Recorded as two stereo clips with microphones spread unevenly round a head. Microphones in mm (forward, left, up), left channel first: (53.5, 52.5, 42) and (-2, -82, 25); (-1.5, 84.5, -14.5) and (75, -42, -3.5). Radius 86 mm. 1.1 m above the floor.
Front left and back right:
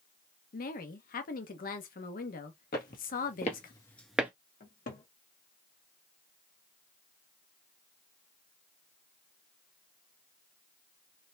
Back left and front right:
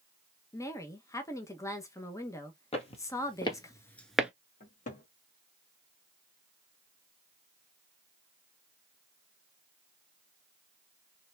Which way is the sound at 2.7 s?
80° left.